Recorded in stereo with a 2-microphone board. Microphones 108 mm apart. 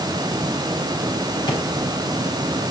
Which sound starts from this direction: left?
A drawer, at 1.5 s.